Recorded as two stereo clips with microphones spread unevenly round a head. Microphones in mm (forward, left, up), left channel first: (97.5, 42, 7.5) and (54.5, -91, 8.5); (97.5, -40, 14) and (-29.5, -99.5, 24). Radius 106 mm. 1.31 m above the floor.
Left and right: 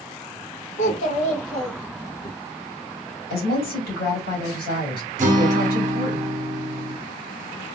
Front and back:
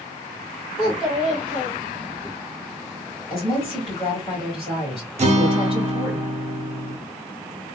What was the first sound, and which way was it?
A child speaking, 90° left.